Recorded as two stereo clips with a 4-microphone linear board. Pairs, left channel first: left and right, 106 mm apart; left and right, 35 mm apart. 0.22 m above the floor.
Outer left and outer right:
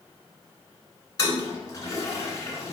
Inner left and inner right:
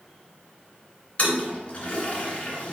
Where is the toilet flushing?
30° left (ahead or behind), 1.4 m.